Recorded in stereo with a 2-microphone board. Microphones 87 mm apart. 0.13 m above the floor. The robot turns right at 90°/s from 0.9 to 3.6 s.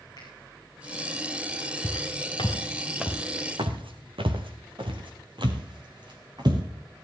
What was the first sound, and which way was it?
A finger snap, 55° left (ahead or behind).